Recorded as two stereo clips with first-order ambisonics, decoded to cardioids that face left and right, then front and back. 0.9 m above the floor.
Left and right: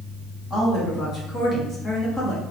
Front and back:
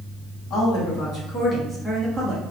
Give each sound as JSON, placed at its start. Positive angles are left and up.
{"t": 0.5, "sound": "a woman speaking", "azimuth_deg": 25, "distance_m": 1.6}